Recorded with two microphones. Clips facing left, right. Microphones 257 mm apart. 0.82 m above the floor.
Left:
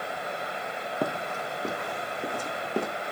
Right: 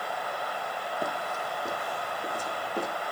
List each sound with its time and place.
1.0 s running footsteps: 65° left (ahead or behind), 1.8 m; by 2.9 s 75° left (ahead or behind), 3.5 m